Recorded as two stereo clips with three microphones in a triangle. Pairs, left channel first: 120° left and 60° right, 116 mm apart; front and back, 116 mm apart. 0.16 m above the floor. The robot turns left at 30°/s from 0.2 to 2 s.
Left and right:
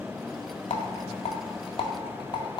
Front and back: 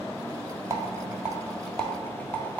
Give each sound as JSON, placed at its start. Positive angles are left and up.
{"t": 0.7, "sound": "a rattle", "azimuth_deg": 115, "distance_m": 0.7}